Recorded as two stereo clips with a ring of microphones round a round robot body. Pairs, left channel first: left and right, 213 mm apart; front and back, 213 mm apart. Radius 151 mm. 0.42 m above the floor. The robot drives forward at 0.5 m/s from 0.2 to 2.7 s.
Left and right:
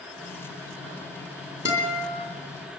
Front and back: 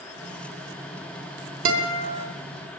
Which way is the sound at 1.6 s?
170° right.